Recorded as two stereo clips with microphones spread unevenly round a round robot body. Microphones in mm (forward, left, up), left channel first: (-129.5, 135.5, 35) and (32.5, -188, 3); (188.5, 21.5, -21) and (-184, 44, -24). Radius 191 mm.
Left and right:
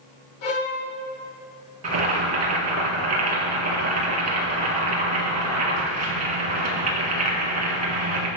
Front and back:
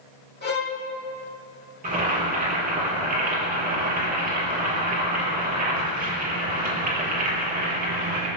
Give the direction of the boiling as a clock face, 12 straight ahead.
4 o'clock.